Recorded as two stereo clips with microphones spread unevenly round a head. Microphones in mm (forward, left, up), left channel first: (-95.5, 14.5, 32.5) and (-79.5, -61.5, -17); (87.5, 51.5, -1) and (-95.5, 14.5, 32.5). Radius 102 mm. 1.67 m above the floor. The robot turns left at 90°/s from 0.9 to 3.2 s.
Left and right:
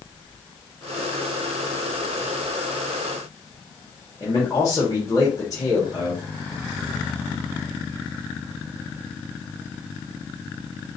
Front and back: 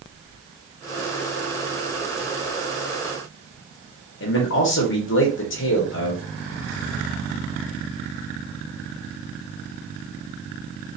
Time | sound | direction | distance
4.2 | a man speaking | 35° left | 1.4 m